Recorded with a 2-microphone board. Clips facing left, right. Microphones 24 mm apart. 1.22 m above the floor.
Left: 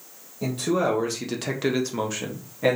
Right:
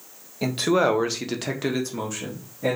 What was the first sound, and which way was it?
A man speaking, 55° right (ahead or behind).